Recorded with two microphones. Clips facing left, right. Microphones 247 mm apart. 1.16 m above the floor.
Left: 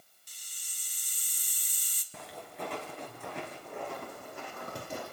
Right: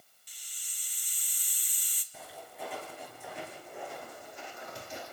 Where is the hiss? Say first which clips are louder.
Left 1 dB; 50° left (ahead or behind), 1.8 m.